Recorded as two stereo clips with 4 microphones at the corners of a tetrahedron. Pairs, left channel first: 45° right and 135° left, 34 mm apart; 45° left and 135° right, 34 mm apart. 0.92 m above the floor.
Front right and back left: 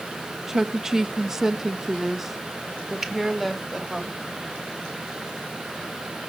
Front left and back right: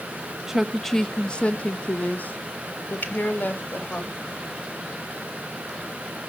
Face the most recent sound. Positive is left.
turn(degrees=60)